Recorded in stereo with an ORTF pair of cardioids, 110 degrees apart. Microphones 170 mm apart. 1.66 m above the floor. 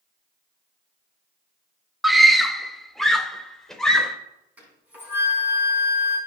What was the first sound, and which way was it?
A scream, straight ahead.